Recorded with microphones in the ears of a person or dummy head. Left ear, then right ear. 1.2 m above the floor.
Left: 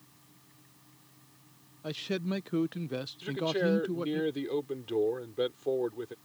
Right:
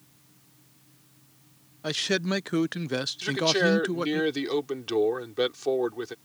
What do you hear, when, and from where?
0.0 s a fan: 60° left (ahead or behind)
1.8 s a man speaking: 55° right (ahead or behind)
3.2 s a man speaking: 50° right (ahead or behind)